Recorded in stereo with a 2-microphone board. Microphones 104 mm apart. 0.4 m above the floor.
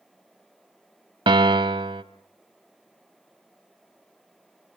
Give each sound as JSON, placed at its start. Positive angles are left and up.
{"t": 1.3, "sound": "a piano", "side_deg": -55, "distance_m": 0.7}